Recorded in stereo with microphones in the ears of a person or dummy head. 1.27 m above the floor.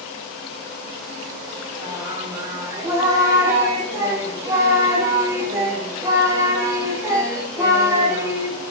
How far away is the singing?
About 0.5 m.